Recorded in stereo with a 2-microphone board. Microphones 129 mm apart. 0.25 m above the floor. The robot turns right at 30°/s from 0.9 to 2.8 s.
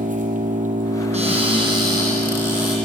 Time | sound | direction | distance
0.0 | an engine running | 80° right | 4 m
1.1 | a cupboard door | 60° right | 7.5 m